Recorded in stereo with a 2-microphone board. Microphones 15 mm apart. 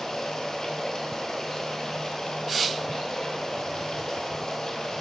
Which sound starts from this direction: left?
Running water, at 0.0 s.